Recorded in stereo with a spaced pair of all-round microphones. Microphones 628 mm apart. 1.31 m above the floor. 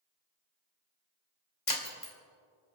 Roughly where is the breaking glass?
Left.